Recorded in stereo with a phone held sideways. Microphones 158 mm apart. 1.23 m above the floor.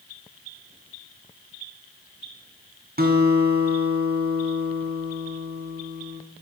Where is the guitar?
70° right (ahead or behind), 3.5 m.